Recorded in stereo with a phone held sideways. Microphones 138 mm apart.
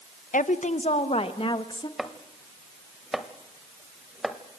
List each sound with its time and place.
0.3 s a woman speaking: 70° left (ahead or behind), 1.0 m; by 1.9 s 35° left (ahead or behind), 1.9 m
2.0 s chopping: 5° right (ahead or behind), 1.2 m